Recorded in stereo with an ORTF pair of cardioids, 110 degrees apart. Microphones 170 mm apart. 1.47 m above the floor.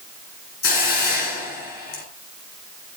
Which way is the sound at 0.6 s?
70° left.